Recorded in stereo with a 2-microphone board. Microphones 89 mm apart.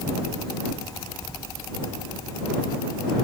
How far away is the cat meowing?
I don't hear a cat meowing.